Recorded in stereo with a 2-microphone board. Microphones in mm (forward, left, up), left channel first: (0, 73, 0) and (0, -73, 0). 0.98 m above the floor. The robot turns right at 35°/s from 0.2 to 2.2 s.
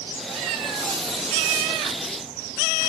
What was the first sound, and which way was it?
A squeak, 155° right.